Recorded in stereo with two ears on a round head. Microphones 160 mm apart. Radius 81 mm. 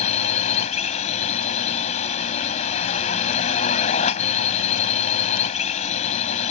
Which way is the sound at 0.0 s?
35° left (ahead or behind).